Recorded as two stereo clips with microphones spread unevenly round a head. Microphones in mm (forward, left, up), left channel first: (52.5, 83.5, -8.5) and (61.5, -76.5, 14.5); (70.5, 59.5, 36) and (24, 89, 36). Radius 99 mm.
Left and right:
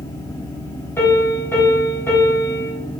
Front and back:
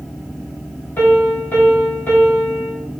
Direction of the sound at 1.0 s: 15° left.